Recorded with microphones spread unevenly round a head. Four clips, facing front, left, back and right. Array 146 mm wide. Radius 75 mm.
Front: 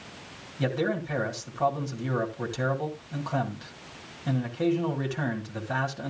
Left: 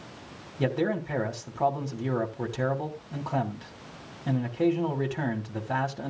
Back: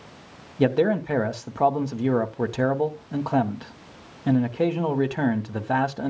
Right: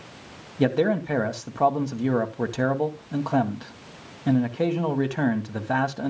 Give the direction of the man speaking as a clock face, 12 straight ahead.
5 o'clock.